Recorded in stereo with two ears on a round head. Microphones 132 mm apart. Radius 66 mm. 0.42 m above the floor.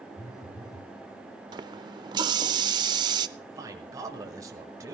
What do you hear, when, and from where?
0.2 s a phone buzzing: 20° left (ahead or behind), 6.5 m
1.5 s a running tap: 30° right (ahead or behind), 0.6 m
3.4 s a man speaking: 25° right (ahead or behind), 1.5 m